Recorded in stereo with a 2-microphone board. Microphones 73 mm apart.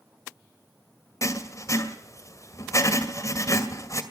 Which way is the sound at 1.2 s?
45° left (ahead or behind).